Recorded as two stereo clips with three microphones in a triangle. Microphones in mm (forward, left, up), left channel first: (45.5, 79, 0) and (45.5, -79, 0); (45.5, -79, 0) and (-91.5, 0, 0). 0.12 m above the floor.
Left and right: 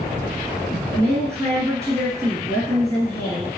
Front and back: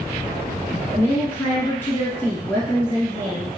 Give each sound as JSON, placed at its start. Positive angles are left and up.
{"t": 0.9, "sound": "a woman speaking", "azimuth_deg": -75, "distance_m": 1.5}